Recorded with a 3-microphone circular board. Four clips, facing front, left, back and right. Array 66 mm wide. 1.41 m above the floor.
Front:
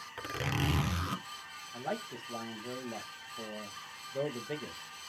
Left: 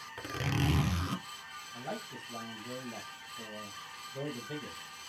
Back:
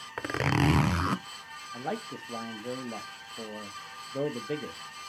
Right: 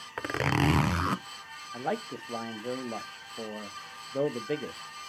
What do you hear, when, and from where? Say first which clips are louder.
0.2 s a zipper: right 7 dB, back 8 dB; 130° right, 0.5 m
1.7 s a man speaking: right 9 dB, back 3 dB; 105° right, 1.1 m